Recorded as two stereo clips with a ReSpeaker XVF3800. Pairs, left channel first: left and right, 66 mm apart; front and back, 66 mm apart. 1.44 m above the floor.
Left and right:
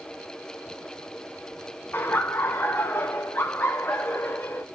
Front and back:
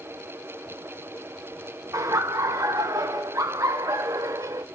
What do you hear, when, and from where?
1.9 s laughter: 150° left, 0.8 m